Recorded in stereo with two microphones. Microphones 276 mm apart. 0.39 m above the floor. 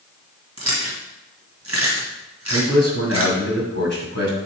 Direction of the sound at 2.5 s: 65° right (ahead or behind).